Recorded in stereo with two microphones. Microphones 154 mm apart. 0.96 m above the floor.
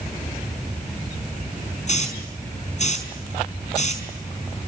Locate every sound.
1.9 s a hiss: 50° left (ahead or behind), 5.5 m